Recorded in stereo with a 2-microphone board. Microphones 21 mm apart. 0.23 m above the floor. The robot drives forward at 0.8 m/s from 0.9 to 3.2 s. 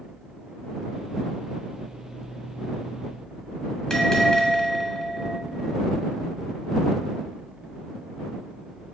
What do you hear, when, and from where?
3.9 s a bell: 25° left (ahead or behind), 1.5 m